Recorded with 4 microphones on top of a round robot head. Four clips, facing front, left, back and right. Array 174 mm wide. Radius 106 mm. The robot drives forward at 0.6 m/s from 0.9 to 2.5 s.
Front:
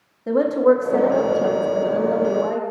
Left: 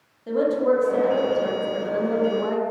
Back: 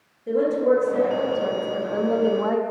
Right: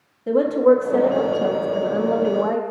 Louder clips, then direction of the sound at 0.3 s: Right 5 dB, front 3 dB; 30° right.